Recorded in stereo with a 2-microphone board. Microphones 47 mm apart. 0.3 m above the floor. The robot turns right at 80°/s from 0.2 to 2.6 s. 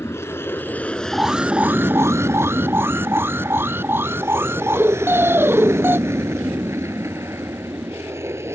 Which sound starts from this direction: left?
An aircraft, at 0.0 s.